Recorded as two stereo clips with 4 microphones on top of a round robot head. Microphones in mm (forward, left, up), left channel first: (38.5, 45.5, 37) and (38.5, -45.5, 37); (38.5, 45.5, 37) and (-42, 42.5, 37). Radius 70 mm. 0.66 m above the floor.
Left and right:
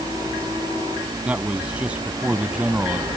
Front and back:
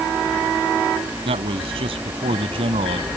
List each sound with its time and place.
1.2 s a man speaking: 170° right